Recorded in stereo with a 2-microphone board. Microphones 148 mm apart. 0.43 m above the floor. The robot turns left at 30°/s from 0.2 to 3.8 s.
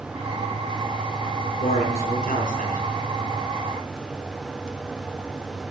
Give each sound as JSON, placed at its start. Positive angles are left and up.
{"t": 1.6, "sound": "a man speaking", "azimuth_deg": 95, "distance_m": 5.5}